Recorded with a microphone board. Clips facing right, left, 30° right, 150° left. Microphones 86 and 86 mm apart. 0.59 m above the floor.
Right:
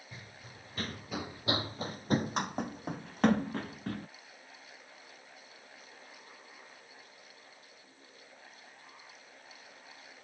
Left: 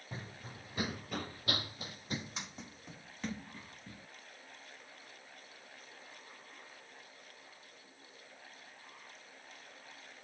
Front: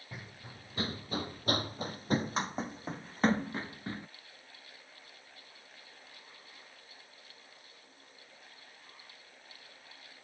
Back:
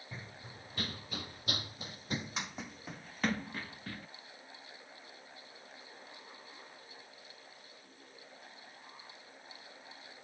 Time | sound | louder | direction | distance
0.1 | running footsteps | left 6 dB, front 1 dB | 45° left | ?